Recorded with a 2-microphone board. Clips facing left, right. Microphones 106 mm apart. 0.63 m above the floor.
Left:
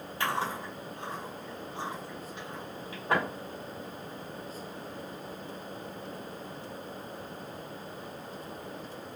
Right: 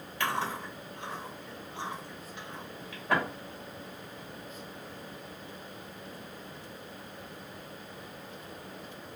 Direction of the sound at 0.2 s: 35° left (ahead or behind).